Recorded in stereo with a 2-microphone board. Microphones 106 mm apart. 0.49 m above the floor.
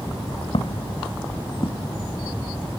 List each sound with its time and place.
0.5 s footsteps: 65° left (ahead or behind); by 1.9 s 40° left (ahead or behind)